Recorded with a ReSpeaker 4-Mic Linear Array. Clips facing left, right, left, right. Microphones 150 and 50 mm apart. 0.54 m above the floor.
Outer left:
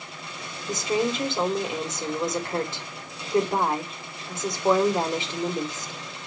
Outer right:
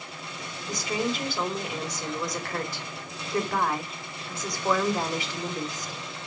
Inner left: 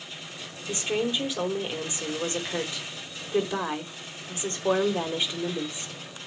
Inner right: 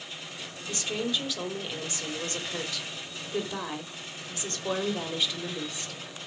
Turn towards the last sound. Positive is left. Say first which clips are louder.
# outer left 4 dB, inner left 4 dB
turn(degrees=25)  # may be behind; listen again after turning